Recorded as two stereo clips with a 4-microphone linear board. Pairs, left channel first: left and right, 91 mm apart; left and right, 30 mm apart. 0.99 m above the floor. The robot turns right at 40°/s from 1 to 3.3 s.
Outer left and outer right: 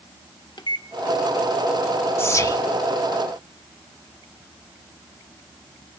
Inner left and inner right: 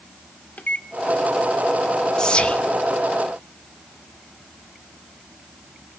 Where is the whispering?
25° left (ahead or behind), 1.1 m; by 2.6 s 45° left (ahead or behind), 1.1 m.